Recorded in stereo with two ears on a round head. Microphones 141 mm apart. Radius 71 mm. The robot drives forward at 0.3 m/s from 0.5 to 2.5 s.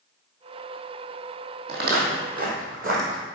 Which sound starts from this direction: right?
Footsteps, at 1.7 s.